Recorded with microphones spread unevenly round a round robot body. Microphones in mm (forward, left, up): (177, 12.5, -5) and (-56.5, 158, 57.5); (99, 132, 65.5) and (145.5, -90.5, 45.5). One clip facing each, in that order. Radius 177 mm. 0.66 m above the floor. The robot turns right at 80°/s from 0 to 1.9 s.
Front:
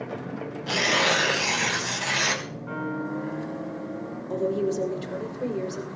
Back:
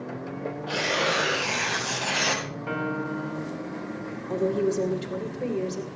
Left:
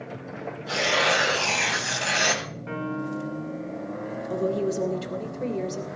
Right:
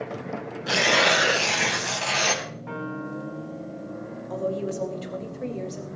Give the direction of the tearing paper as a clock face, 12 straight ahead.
2 o'clock.